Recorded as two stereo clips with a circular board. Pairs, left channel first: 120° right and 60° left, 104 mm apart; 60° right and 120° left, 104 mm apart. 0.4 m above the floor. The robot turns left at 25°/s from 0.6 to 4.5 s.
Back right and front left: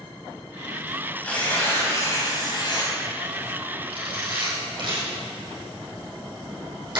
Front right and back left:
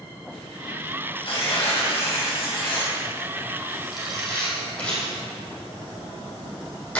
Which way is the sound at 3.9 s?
35° left.